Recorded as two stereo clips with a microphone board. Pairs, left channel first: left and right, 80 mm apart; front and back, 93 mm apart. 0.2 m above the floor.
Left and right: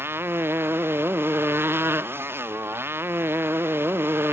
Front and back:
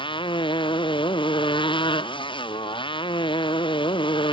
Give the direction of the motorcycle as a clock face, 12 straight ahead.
1 o'clock.